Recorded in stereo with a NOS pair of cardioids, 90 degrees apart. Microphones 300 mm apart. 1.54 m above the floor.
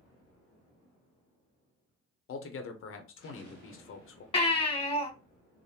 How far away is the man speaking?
About 0.7 m.